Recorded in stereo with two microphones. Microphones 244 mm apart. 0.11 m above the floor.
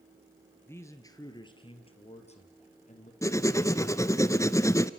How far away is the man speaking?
About 2 m.